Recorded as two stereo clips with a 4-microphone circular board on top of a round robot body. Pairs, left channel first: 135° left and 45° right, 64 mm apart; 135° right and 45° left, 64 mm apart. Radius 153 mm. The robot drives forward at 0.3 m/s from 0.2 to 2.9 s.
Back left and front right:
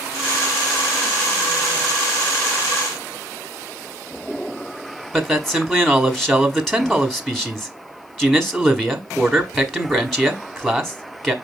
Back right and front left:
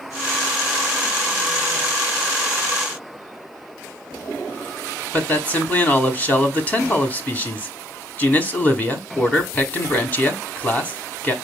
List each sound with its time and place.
5.1 s a man speaking: 145° right, 1.2 m